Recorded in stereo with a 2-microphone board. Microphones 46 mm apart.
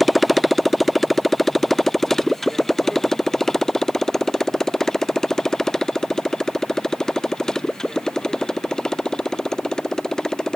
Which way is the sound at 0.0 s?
Centre (ahead or behind).